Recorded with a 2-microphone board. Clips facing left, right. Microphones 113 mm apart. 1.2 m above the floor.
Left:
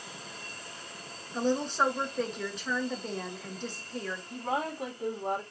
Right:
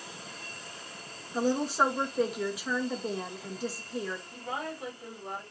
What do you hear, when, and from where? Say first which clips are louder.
1.3 s a woman speaking: right 1 dB; 5° right (ahead or behind), 1.2 m
4.3 s a woman speaking: left 4 dB; 80° left, 2 m